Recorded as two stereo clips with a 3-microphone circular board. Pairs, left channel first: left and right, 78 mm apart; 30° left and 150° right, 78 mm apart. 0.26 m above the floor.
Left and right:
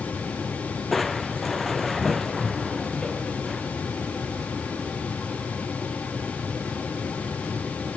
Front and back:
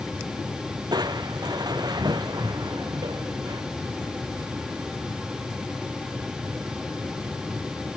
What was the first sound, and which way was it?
Crushing, straight behind.